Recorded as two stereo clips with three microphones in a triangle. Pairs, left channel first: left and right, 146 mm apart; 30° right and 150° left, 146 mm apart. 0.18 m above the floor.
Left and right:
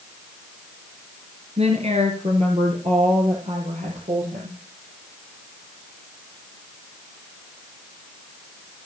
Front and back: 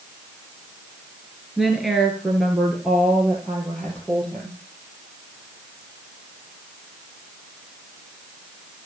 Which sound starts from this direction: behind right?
A woman speaking, at 1.6 s.